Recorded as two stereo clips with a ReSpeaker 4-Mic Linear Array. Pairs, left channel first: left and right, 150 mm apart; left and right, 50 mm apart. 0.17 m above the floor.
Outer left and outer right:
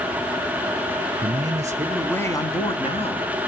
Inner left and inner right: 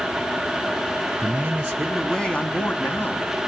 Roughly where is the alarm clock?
No alarm clock in this recording.